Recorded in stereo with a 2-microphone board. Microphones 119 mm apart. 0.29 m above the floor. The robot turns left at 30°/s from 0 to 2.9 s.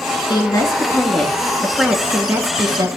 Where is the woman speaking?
40° left, 3 m; by 2.9 s 35° right, 3 m.